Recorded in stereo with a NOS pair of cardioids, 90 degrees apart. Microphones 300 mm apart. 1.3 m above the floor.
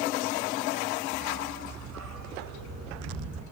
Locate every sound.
1.1 s a dog barking: 65° right, 4.5 m; by 3.4 s 55° right, 5.5 m